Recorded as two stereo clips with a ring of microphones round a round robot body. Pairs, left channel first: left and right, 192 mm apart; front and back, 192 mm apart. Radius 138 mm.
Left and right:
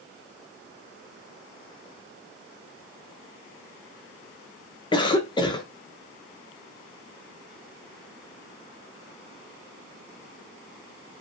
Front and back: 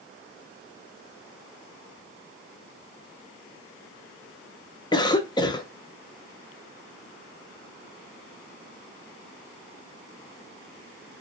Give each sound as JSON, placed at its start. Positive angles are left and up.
{"t": 4.9, "sound": "a cough", "azimuth_deg": 45, "distance_m": 0.8}